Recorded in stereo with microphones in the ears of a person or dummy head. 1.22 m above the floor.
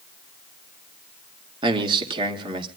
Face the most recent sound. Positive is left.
turn(degrees=-35)  # may be behind; listen again after turning